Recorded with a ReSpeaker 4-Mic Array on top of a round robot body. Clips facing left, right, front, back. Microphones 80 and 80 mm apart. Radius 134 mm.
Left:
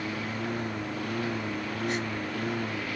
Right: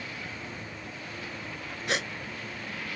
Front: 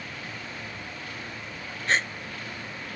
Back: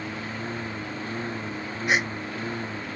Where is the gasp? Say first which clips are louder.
Right 2 dB, back 2 dB; 100° right.